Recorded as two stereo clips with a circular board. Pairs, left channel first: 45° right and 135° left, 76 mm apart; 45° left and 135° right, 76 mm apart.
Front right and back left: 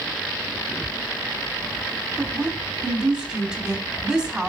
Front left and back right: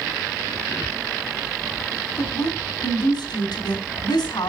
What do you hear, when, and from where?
2.2 s a woman speaking: 60° left, 3.5 m